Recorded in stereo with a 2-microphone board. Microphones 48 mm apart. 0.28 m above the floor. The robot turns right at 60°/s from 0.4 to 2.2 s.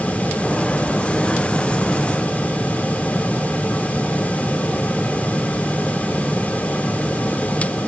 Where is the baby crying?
No baby crying in this recording.